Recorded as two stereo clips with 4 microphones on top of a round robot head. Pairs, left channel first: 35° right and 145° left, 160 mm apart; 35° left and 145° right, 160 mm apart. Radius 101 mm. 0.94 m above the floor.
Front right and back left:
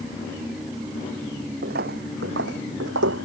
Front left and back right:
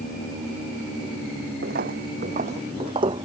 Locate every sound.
1.6 s footsteps: straight behind; by 3.2 s 145° left